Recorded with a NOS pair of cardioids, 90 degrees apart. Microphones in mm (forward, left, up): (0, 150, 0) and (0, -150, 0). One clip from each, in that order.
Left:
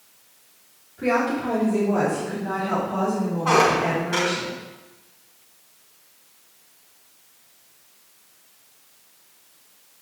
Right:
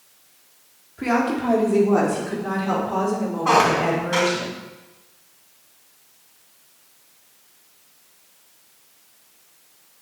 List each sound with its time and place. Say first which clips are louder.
1.0 s a woman speaking: even; 35° right, 3.5 m; by 4.5 s 70° right, 6 m
3.5 s a squeak: right 1 dB; 20° right, 3.5 m